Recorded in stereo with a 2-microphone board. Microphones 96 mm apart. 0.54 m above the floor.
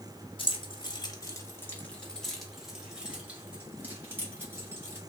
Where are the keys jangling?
60° left (ahead or behind), 1.0 m; by 5.0 s 25° right (ahead or behind), 2.5 m.